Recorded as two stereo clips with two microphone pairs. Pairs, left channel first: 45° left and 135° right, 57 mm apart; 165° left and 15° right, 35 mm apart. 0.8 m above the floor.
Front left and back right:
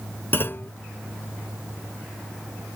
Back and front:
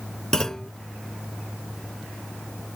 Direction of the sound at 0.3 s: 95° left.